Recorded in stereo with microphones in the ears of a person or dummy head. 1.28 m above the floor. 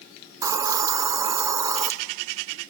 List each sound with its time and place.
0.4 s a hiss: 15° right (ahead or behind), 0.5 m